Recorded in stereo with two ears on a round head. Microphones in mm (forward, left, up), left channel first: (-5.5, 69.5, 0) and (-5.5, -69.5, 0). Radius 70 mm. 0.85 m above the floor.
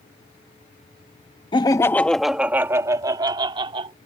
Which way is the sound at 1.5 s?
30° left (ahead or behind).